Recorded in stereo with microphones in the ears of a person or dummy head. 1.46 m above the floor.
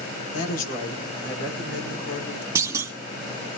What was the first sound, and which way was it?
A woman speaking, 45° left (ahead or behind).